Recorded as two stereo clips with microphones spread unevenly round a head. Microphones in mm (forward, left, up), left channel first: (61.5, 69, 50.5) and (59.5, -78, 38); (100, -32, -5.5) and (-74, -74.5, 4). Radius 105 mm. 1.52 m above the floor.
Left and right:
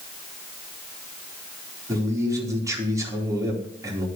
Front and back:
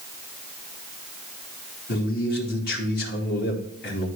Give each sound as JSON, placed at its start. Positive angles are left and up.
{"t": 1.9, "sound": "a man speaking", "azimuth_deg": -20, "distance_m": 4.0}